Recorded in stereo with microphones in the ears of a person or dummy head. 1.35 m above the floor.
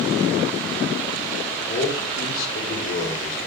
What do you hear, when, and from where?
1.7 s a man speaking: 45° left (ahead or behind), 4.5 m